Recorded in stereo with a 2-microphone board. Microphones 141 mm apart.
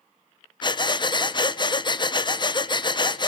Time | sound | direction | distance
0.6 | breathing | 35° left (ahead or behind) | 0.7 m